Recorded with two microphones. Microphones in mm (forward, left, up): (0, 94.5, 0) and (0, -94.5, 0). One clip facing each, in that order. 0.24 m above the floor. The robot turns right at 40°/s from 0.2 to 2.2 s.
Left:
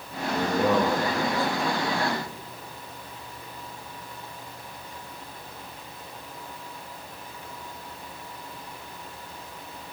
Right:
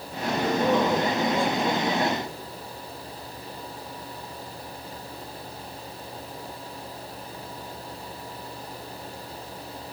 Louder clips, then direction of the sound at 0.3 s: Even; 60° left (ahead or behind).